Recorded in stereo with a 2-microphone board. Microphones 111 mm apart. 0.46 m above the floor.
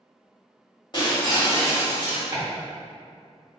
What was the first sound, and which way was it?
Breaking glass, 40° left (ahead or behind).